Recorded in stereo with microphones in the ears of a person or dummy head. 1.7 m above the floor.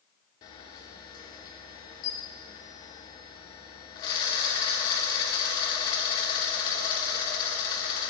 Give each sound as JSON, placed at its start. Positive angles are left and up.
{"t": 0.4, "sound": "a camera shutter", "side_deg": 20, "distance_m": 1.0}